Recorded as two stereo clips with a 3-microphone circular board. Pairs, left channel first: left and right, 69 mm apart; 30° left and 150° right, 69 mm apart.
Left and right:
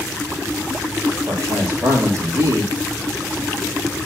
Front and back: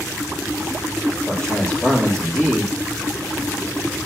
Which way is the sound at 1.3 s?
50° right.